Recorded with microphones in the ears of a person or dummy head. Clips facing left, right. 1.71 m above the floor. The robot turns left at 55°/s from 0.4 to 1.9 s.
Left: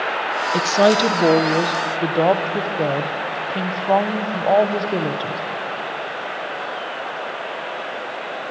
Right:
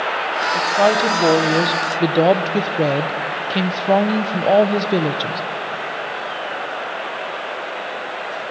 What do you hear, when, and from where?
0.5 s a woman speaking: 50° left, 1.1 m; by 5.4 s 25° right, 1.1 m